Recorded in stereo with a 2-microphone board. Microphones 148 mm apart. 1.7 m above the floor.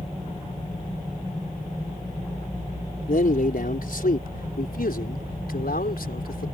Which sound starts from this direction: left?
A man speaking, at 3.1 s.